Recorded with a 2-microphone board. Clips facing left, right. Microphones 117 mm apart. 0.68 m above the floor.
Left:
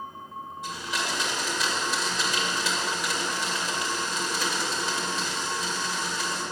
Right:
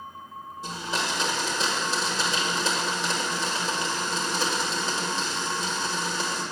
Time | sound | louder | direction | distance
0.6 | a blender | right 2 dB | 30° right (ahead or behind) | 1.9 m